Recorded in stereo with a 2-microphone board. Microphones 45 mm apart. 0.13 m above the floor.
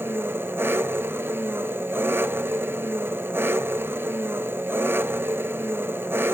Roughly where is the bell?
I don't hear a bell.